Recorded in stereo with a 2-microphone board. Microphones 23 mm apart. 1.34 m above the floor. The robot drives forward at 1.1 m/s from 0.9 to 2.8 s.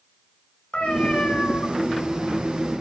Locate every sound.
0.7 s a cat meowing: 60° left (ahead or behind), 6.5 m; by 1.7 s 65° left (ahead or behind), 6 m